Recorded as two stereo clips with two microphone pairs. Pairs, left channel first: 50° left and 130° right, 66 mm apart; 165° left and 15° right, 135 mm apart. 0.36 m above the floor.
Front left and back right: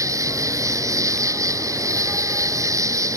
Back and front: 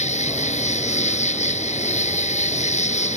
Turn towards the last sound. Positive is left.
turn(degrees=-165)